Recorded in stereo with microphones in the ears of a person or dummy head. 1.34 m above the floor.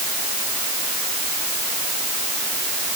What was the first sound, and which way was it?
Only background noise.